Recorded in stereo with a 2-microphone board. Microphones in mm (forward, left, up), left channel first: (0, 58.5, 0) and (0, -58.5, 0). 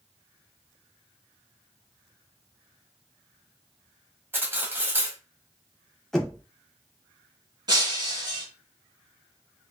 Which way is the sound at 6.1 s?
5° left (ahead or behind).